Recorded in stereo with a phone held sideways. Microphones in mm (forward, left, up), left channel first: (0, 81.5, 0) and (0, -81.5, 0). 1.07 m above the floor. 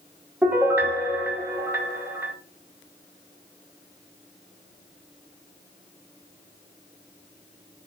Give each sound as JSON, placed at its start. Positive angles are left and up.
{"t": 0.4, "sound": "a piano", "side_deg": -10, "distance_m": 1.0}